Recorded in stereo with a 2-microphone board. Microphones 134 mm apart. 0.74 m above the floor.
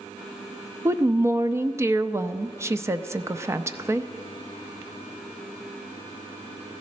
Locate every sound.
0.8 s a woman speaking: 20° right (ahead or behind), 0.5 m